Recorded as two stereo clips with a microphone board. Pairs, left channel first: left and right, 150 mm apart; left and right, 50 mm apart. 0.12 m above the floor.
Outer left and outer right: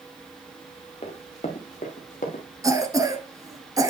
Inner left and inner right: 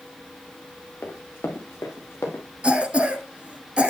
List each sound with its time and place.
1.0 s running footsteps: 45° left (ahead or behind), 2.5 m; by 2.4 s 60° left (ahead or behind), 3.5 m
2.6 s a cough: 25° right (ahead or behind), 1.3 m